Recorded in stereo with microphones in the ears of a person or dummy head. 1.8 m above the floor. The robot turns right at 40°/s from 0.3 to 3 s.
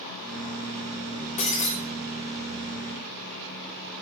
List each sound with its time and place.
1.4 s breaking glass: 45° left (ahead or behind), 3 m; by 1.7 s 30° left (ahead or behind), 3 m